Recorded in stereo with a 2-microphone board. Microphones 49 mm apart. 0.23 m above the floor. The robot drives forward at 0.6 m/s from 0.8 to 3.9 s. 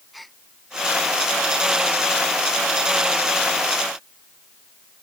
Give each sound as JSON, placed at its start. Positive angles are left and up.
{"t": 0.1, "sound": "a gasp", "side_deg": 0}